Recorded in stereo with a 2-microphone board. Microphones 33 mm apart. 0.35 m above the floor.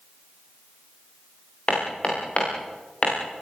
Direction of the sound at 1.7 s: 40° left (ahead or behind).